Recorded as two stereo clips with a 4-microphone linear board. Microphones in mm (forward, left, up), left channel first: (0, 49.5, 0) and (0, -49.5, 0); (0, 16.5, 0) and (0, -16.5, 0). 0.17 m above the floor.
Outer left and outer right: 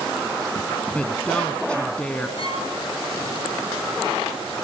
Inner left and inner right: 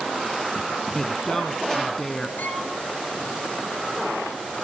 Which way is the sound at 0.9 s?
10° left (ahead or behind).